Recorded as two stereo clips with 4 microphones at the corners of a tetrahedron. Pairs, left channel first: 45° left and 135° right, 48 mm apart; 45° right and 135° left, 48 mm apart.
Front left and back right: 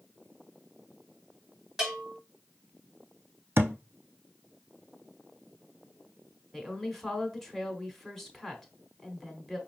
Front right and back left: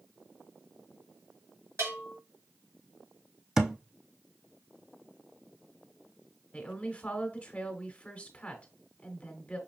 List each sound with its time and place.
1.8 s a bell: 145° left, 2 m
3.6 s a thud: 145° right, 0.6 m
6.5 s a woman speaking: 30° right, 1.2 m